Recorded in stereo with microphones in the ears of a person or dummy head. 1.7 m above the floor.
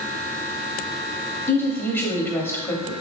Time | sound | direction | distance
1.5 | a woman speaking | 10° left (ahead or behind) | 1.1 m